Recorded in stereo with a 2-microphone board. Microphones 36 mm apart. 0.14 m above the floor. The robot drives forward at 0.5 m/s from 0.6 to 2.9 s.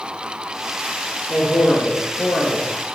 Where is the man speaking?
40° left (ahead or behind), 3 m; by 2.7 s 35° left (ahead or behind), 3.5 m.